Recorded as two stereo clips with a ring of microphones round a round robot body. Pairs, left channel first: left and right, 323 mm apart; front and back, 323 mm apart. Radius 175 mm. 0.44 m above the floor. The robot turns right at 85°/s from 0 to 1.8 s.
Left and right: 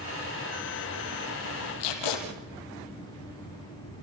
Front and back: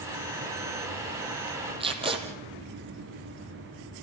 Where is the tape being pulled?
105° left, 4.5 m.